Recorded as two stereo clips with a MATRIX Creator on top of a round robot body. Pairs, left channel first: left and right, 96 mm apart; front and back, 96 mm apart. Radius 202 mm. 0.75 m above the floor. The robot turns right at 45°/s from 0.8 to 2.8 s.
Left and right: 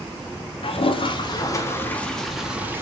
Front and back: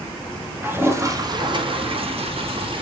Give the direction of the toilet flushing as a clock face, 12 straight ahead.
8 o'clock.